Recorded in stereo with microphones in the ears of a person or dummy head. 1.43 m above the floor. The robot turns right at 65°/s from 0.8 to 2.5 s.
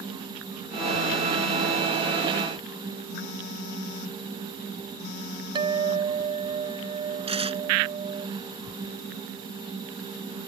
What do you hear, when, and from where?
3.1 s a phone buzzing: 60° left (ahead or behind)
5.5 s a guitar: 25° right (ahead or behind)
7.3 s tearing paper: 25° right (ahead or behind)